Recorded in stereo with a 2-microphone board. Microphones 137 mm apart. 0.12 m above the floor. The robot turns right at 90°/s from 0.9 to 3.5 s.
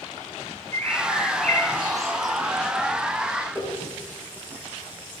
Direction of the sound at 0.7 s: 120° right.